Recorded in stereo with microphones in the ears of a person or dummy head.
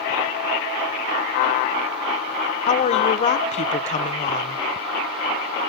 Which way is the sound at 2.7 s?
35° left (ahead or behind).